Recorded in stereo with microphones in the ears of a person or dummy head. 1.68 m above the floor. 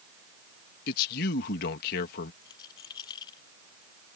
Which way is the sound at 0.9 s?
50° left (ahead or behind).